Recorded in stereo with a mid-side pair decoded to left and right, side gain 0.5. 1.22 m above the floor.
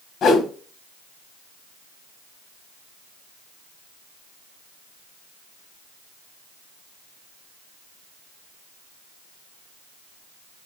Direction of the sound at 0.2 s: 60° left.